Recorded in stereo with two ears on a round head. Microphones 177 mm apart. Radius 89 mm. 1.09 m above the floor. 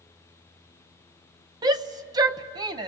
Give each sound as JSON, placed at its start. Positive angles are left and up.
{"t": 1.6, "sound": "a shout", "side_deg": -20, "distance_m": 0.6}